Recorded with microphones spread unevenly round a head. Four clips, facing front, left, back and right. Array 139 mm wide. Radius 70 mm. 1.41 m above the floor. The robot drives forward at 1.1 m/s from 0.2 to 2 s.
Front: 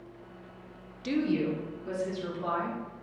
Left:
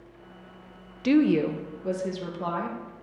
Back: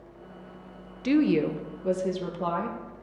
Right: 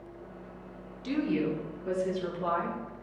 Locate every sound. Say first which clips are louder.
1.0 s a woman speaking: left 8 dB, back 6 dB; 105° left, 0.6 m; by 2.8 s 155° left, 1.4 m